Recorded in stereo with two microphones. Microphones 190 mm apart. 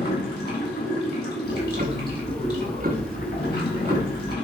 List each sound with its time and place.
0.0 s running water: 60° left (ahead or behind), 3.5 m
1.4 s ticking: 50° right (ahead or behind), 1.0 m